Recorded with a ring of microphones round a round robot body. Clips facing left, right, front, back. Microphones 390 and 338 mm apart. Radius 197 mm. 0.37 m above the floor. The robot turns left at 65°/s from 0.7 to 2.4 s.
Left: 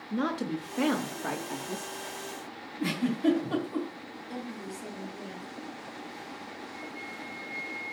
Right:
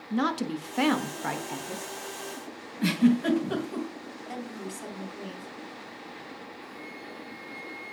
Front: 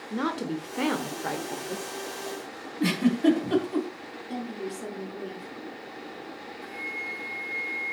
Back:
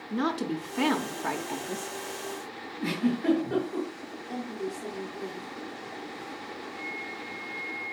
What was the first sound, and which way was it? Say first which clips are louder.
A woman speaking: right 2 dB, back 1 dB; 95° right.